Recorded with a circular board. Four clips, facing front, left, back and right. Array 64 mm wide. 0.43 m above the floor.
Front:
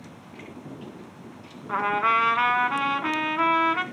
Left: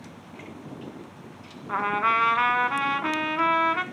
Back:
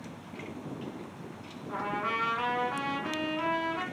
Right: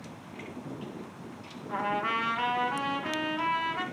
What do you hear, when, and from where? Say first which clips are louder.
1.7 s a trumpet: left 6 dB, front 10 dB; 45° left, 1.5 m